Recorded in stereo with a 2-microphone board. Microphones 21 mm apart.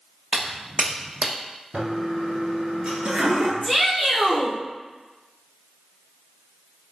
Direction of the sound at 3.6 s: 15° right (ahead or behind).